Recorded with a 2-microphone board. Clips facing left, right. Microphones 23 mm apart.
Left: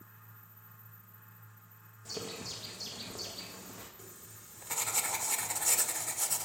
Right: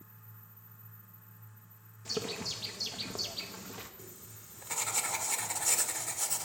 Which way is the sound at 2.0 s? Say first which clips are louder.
Right 5 dB; 35° right (ahead or behind).